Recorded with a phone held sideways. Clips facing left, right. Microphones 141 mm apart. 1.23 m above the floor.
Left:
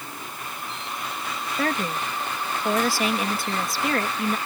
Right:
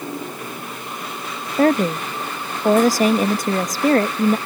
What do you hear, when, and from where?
0.0 s a machine running: 45° right (ahead or behind)
1.6 s a woman speaking: 40° right (ahead or behind)